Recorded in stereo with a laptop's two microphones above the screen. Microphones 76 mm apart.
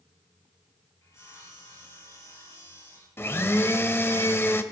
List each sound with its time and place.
1.0 s sawing: 40° left (ahead or behind), 7 m
3.2 s a blender: 35° left (ahead or behind), 1.0 m